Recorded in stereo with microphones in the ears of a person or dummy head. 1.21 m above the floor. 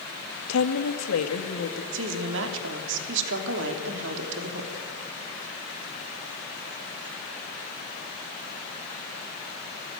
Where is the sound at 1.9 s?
70° right (ahead or behind), 2.5 m.